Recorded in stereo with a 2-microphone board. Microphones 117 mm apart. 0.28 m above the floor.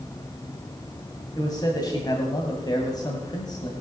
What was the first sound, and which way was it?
A man speaking, 35° left (ahead or behind).